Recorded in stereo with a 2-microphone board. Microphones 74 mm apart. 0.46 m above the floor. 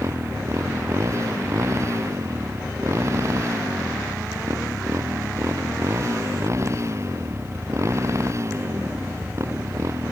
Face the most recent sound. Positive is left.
turn(degrees=-40)  # may be behind; listen again after turning